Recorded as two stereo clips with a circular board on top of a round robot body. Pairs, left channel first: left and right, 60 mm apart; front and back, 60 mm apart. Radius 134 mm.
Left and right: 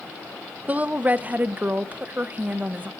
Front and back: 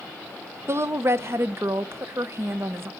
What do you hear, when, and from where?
0.7 s a woman speaking: 145° right, 0.7 m